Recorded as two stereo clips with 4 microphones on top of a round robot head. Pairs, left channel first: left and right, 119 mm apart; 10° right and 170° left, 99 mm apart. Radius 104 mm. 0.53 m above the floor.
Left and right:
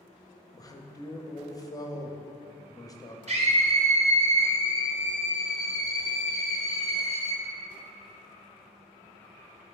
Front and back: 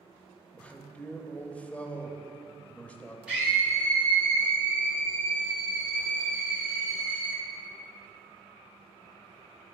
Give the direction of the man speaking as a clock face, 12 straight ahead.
10 o'clock.